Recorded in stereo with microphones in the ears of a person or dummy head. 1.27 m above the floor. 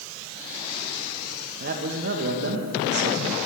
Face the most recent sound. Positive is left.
turn(degrees=-50)  # may be behind; listen again after turning